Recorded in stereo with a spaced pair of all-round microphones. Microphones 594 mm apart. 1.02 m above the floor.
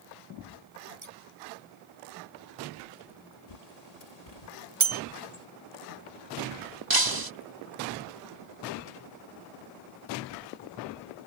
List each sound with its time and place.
1.0 s scissors: 75° right (ahead or behind)
3.5 s a bird: 75° left (ahead or behind)
4.8 s a bell: 50° right (ahead or behind)
6.9 s breaking glass: 35° right (ahead or behind)